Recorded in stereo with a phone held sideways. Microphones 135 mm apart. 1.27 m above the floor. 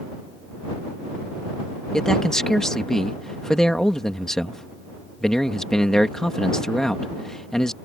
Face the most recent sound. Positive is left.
turn(degrees=5)  # may be behind; listen again after turning